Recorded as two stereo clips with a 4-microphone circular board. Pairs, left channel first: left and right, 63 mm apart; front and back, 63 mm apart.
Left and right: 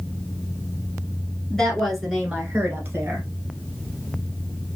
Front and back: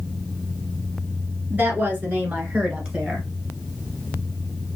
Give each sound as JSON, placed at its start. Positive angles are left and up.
{"t": 1.5, "sound": "a woman speaking", "azimuth_deg": 160, "distance_m": 1.4}